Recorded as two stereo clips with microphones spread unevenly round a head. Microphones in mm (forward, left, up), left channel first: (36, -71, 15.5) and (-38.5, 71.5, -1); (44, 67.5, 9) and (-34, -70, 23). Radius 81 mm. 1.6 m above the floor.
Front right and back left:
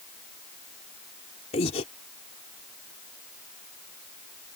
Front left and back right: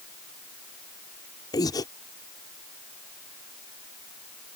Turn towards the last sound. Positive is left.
turn(degrees=-5)